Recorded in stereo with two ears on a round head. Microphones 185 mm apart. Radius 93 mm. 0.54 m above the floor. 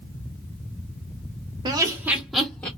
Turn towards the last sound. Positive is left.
turn(degrees=10)  # may be behind; listen again after turning